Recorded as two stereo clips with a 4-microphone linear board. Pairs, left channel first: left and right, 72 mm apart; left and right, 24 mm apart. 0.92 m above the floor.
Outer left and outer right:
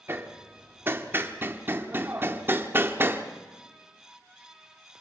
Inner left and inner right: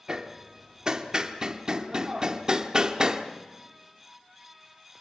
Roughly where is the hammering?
Right.